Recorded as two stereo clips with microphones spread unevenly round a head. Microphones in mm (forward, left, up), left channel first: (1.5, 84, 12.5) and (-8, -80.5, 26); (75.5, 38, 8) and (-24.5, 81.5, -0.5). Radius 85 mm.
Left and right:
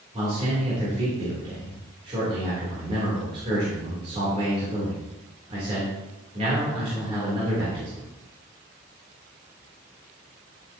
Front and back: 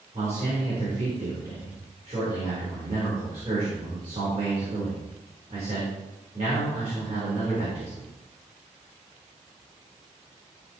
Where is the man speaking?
150° right, 3.5 m.